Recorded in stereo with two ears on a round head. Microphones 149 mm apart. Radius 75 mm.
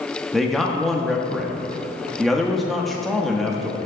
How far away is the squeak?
No squeak in this recording.